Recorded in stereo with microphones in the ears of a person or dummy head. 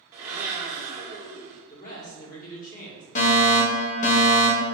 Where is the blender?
15° right (ahead or behind), 0.8 m.